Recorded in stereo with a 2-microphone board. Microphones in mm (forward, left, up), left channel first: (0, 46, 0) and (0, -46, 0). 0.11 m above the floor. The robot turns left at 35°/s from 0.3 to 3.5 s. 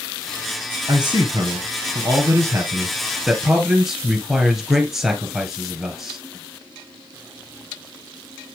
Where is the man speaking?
85° right, 1.7 m; by 6.2 s 175° right, 1.7 m.